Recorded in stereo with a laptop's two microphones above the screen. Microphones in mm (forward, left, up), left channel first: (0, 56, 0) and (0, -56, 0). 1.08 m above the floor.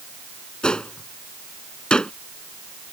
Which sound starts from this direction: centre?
A gunshot, at 0.6 s.